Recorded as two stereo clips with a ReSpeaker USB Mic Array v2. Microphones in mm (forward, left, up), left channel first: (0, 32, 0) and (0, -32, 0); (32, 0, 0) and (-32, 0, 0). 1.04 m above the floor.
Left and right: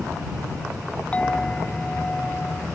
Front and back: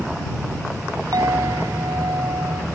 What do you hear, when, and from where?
1.1 s a clink: 165° left